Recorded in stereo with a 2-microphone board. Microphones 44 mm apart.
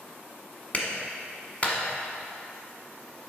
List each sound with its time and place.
0.7 s a clap: 35° left (ahead or behind), 1.2 m